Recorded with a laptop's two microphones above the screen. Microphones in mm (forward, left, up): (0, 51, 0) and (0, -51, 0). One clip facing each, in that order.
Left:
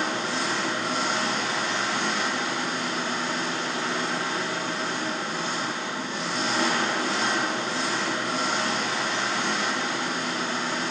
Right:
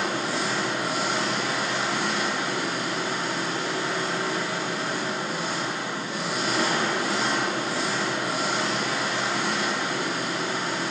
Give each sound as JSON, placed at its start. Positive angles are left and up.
{"t": 0.0, "sound": "an engine running", "side_deg": -10, "distance_m": 1.2}